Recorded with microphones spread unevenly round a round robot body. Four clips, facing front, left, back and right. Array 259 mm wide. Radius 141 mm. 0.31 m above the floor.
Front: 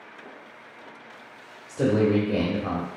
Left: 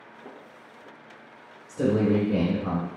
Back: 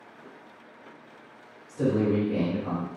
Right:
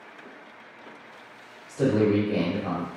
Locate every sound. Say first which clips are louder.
1.7 s a man speaking: right 1 dB, front 3 dB; 35° left, 1.1 m